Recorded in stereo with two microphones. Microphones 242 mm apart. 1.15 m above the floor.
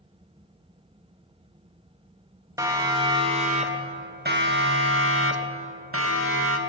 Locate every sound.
2.6 s a siren: 15° right (ahead or behind), 2.5 m; by 6.6 s 65° right (ahead or behind), 2.5 m